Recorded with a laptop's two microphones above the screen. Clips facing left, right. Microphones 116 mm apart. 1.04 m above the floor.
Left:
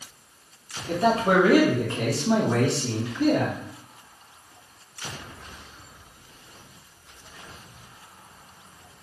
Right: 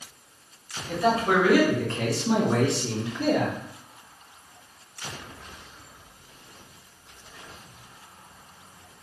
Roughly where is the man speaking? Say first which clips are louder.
Left 2 dB; left.